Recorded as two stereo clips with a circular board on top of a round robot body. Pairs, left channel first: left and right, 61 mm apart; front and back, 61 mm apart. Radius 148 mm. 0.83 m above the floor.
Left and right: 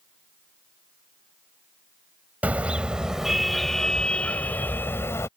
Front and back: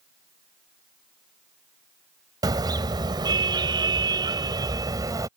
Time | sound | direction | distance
2.4 | a car horn | 155° right | ?